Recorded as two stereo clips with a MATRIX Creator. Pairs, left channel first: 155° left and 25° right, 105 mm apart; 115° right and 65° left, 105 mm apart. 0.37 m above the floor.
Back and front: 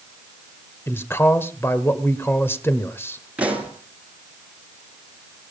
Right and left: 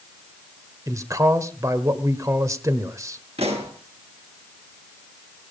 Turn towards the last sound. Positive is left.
turn(degrees=55)